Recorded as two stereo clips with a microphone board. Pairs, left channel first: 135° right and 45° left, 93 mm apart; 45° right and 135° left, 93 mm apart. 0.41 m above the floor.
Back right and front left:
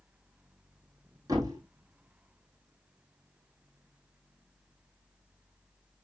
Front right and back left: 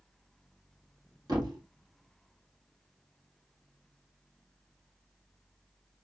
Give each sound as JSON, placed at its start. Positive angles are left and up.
{"t": 1.3, "sound": "a thud", "azimuth_deg": 95, "distance_m": 2.0}